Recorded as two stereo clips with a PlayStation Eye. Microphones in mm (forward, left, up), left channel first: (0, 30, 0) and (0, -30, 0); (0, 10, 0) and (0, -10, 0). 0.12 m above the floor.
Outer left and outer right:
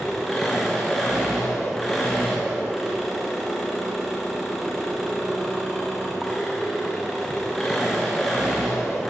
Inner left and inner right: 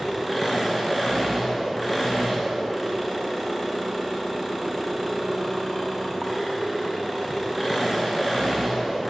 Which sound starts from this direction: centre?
An engine running, at 0.0 s.